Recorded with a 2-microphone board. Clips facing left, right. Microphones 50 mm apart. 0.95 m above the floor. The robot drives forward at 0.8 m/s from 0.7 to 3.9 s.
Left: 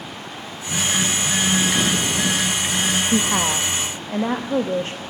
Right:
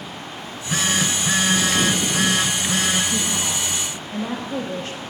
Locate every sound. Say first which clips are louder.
0.4 s a phone buzzing: right 2 dB; 85° right, 4 m; by 3.0 s 70° right (ahead or behind), 4.5 m
3.1 s a woman speaking: left 5 dB; 60° left (ahead or behind), 0.7 m; by 5.0 s 35° left (ahead or behind), 1.2 m